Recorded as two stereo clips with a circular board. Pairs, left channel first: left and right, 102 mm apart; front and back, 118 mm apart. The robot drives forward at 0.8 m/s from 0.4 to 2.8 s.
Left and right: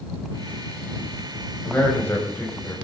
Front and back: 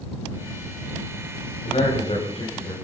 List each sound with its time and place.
1.6 s a man speaking: 20° left, 5 m; by 2.8 s 25° left, 4 m